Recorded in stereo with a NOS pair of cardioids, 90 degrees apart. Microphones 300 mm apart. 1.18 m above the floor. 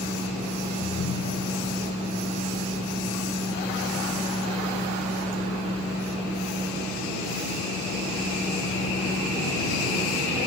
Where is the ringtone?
60° left.